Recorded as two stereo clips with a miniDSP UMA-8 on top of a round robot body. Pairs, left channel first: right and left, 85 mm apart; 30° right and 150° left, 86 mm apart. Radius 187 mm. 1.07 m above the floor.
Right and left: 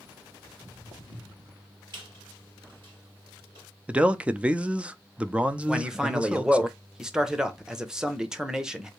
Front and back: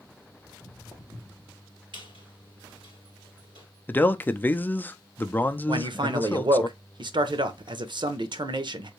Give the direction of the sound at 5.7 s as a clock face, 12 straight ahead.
6 o'clock.